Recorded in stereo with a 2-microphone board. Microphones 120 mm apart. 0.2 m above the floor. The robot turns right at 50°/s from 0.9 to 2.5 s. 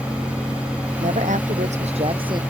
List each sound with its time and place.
1.0 s a woman speaking: 105° right; by 2.4 s 35° right